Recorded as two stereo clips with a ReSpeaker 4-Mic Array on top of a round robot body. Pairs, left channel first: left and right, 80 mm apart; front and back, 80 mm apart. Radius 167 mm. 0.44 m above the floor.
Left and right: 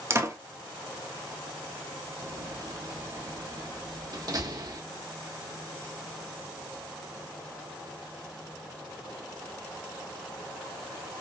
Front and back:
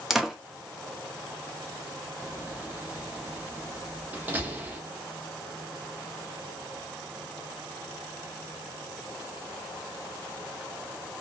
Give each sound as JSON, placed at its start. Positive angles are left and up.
{"t": 0.1, "sound": "a door slam", "azimuth_deg": -100, "distance_m": 0.8}
{"t": 2.2, "sound": "a door slam", "azimuth_deg": -120, "distance_m": 0.9}